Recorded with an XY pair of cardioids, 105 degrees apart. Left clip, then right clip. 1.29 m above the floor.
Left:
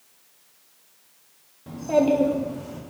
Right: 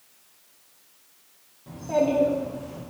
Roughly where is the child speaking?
Ahead left.